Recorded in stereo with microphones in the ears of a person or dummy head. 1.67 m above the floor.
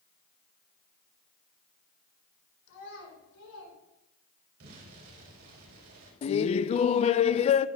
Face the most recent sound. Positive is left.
turn(degrees=30)  # may be behind; listen again after turning